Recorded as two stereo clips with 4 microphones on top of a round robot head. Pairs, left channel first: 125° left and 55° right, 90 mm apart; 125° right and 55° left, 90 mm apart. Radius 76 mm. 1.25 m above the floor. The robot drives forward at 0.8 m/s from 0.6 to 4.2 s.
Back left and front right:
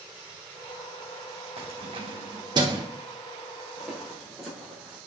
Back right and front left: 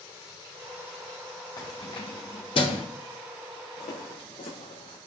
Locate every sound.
1.6 s keys jangling: 80° right, 2.5 m; by 2.8 s 100° right, 2.5 m
3.8 s footsteps: 140° right, 6 m